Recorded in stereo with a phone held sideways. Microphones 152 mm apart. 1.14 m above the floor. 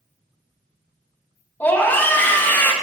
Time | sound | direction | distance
1.6 | a scream | 15° left (ahead or behind) | 1.0 m